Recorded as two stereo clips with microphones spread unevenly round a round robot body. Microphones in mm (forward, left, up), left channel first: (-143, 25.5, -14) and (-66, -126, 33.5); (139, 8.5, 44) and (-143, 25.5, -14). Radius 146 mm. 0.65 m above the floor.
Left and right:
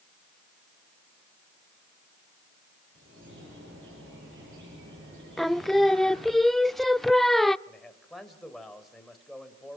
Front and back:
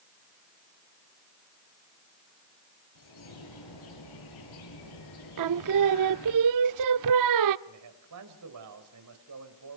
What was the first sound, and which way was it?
A bird, 15° right.